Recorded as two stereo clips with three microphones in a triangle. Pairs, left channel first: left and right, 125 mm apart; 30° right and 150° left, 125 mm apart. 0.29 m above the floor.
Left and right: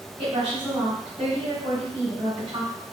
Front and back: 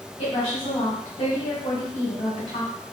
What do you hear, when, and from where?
0.2 s a woman speaking: 60° right, 2.5 m